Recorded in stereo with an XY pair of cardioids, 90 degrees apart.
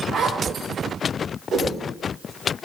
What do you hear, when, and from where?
0.1 s a zipper: 65° right, 1.0 m
1.5 s a whoosh: 60° right, 1.5 m